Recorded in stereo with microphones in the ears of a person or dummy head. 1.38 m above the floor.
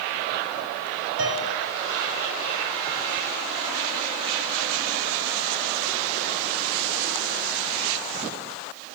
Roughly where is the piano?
Right.